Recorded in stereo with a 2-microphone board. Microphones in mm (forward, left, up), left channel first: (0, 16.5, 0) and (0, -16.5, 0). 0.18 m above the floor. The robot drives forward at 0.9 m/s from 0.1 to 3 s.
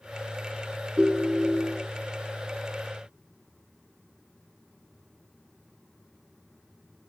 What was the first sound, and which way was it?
A ringtone, 25° right (ahead or behind).